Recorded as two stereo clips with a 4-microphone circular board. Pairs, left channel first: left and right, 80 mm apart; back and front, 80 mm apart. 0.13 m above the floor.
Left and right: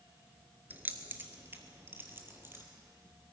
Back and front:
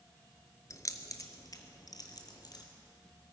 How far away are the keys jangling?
About 1.1 m.